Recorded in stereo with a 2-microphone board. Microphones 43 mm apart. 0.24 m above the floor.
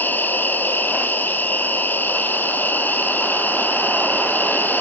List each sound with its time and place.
0.0 s an insect: 45° left (ahead or behind), 2 m